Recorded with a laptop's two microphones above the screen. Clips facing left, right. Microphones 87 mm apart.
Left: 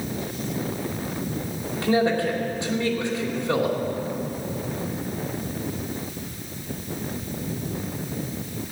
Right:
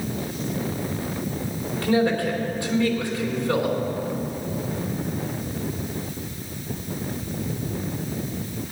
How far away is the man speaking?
About 3 m.